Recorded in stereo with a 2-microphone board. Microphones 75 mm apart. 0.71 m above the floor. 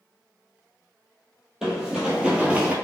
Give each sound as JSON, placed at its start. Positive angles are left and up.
{"t": 1.6, "sound": "running footsteps", "side_deg": -5, "distance_m": 1.0}